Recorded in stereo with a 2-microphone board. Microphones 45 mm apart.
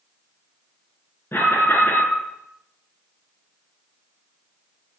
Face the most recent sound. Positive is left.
turn(degrees=60)  # may be behind; listen again after turning